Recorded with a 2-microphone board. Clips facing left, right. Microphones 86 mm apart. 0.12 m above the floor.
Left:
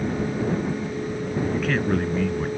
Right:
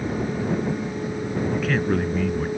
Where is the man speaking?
Centre (ahead or behind).